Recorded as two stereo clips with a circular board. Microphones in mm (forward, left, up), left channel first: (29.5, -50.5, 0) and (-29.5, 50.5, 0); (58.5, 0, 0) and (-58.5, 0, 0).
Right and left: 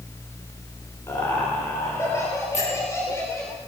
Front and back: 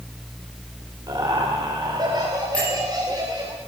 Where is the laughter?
125° right, 3.5 m.